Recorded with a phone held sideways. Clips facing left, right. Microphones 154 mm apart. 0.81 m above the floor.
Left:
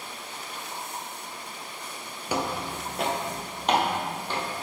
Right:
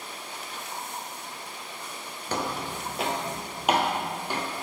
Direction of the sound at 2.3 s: 10° left (ahead or behind).